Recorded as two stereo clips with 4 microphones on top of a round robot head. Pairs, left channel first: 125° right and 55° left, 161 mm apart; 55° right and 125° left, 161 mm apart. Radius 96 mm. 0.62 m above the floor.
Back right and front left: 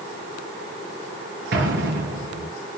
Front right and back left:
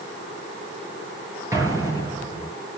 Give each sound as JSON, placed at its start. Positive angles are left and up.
{"t": 1.5, "sound": "an explosion", "azimuth_deg": 55, "distance_m": 6.0}